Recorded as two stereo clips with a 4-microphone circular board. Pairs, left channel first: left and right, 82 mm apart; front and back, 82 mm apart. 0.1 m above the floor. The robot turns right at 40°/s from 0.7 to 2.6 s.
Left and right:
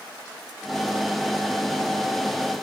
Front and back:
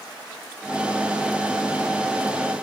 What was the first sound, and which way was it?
Only background noise.